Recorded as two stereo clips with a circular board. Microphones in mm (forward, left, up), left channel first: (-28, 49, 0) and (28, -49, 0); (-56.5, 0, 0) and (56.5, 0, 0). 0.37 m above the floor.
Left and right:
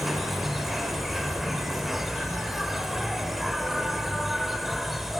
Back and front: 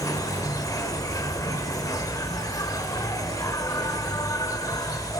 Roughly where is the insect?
Behind right.